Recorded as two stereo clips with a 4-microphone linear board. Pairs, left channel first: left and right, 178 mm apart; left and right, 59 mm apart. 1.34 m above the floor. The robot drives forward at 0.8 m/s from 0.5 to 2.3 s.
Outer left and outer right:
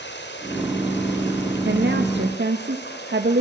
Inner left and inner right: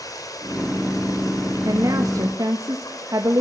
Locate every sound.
0.0 s running water: 85° left, 5 m; by 3.4 s 75° left (ahead or behind), 5 m
1.6 s a woman speaking: 80° right, 2 m